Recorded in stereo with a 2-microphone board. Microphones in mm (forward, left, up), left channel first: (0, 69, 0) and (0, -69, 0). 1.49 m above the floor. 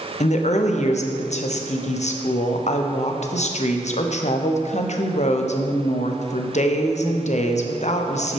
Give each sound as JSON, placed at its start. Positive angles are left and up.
{"t": 0.2, "sound": "a woman speaking", "side_deg": 55, "distance_m": 0.6}